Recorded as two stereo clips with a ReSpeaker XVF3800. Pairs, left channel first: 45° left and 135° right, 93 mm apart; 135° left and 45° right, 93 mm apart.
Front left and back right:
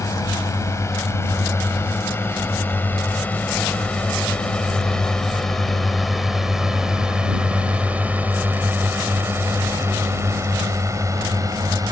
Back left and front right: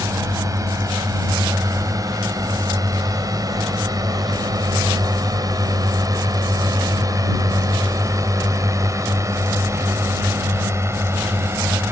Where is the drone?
Straight ahead; by 11.9 s 100° right.